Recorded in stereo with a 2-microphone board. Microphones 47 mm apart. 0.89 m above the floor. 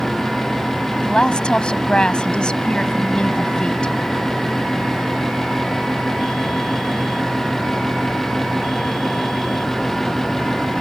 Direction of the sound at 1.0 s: 20° left (ahead or behind).